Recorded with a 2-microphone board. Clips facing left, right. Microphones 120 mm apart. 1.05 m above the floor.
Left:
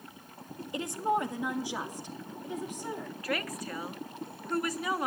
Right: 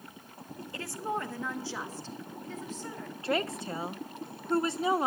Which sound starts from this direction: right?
A woman speaking, at 3.2 s.